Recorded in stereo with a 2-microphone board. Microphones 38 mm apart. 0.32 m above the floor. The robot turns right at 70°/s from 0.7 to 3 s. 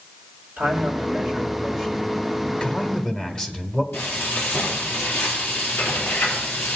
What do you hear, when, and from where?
0.6 s a man speaking: 80° right, 2 m; by 2.0 s 10° left, 2 m
2.4 s a man speaking: 100° left, 1.1 m; by 3.8 s 140° left, 1.1 m
3.9 s frying: 75° left (ahead or behind), 3.5 m